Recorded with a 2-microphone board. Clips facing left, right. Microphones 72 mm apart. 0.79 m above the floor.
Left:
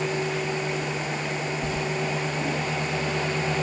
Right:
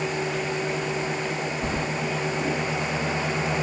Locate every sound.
1.6 s keys jangling: 40° right (ahead or behind)